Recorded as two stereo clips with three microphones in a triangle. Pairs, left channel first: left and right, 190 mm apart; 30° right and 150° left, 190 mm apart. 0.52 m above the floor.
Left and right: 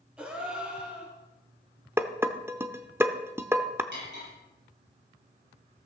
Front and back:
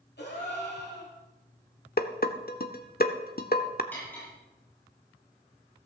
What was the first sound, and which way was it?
A gasp, 5° right.